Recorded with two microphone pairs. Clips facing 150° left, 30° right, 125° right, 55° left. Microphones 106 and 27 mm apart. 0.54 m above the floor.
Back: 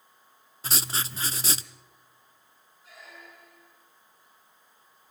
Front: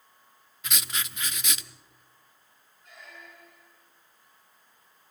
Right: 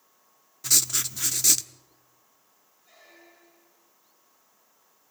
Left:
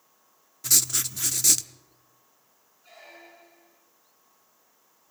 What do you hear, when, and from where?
0.6 s writing: 155° left, 0.5 m
2.8 s a squeak: 65° left, 2 m